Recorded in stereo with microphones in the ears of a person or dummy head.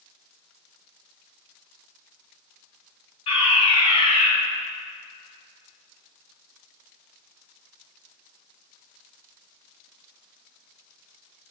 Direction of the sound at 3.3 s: 35° left (ahead or behind).